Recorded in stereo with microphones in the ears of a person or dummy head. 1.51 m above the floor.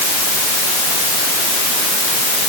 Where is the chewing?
No chewing in this recording.